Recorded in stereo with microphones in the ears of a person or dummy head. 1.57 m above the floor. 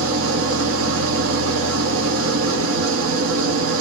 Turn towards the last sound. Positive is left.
turn(degrees=-75)  # may be behind; listen again after turning